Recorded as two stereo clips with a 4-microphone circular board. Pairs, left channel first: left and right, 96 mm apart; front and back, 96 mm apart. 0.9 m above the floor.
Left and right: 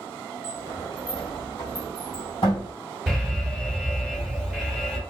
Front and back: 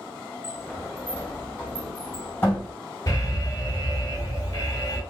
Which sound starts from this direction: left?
A sliding door, at 0.4 s.